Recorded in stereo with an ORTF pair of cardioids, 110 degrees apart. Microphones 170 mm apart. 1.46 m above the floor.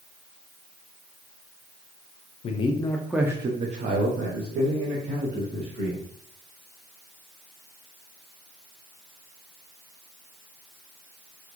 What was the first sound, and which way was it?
A man speaking, 40° left.